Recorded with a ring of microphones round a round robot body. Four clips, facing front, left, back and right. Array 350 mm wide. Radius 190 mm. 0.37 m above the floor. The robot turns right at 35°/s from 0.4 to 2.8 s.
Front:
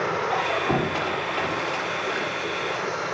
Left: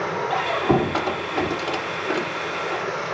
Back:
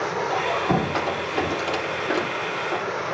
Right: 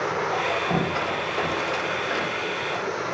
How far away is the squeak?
About 4.5 m.